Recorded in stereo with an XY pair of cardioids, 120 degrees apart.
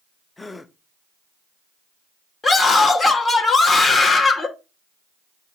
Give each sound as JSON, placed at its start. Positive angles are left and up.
{"t": 0.4, "sound": "a gasp", "azimuth_deg": 15, "distance_m": 0.6}
{"t": 2.4, "sound": "a scream", "azimuth_deg": 25, "distance_m": 2.0}